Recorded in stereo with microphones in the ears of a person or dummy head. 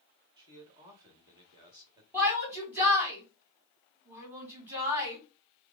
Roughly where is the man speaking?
Right.